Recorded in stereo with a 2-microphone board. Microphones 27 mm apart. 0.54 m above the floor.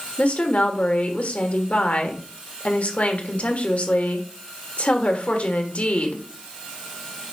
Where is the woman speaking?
55° left (ahead or behind), 1.5 m.